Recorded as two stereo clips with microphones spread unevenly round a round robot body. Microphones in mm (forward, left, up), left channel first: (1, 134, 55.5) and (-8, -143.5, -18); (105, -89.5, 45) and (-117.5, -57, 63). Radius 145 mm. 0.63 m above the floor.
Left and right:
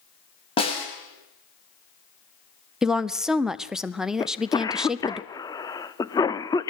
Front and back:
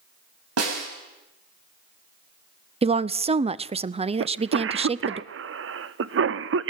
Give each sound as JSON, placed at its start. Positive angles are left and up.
{"t": 0.6, "sound": "a snare drum", "azimuth_deg": 160, "distance_m": 5.5}
{"t": 2.8, "sound": "a woman speaking", "azimuth_deg": -145, "distance_m": 0.8}
{"t": 4.2, "sound": "a cough", "azimuth_deg": 175, "distance_m": 1.0}